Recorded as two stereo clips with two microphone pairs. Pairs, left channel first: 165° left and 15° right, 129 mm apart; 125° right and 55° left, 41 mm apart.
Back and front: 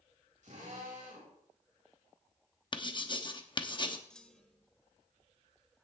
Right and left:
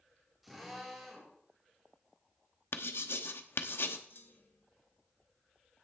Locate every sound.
0.4 s a drill: 30° right, 5 m
2.7 s writing: 140° right, 0.9 m
4.1 s a clunk: 110° right, 1.0 m